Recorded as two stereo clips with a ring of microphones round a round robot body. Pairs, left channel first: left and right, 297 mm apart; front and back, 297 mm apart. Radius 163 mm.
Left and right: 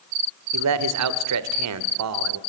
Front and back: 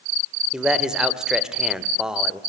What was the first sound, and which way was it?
A man speaking, 95° right.